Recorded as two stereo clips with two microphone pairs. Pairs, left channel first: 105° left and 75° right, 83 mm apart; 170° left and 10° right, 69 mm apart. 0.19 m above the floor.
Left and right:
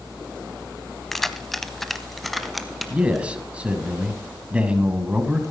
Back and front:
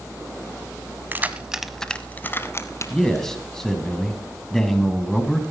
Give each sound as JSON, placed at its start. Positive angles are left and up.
{"t": 1.1, "sound": "keys jangling", "azimuth_deg": 20, "distance_m": 0.7}
{"t": 2.9, "sound": "a man speaking", "azimuth_deg": -120, "distance_m": 1.3}